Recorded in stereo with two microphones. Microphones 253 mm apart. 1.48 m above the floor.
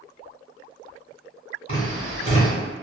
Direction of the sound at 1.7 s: 35° left (ahead or behind).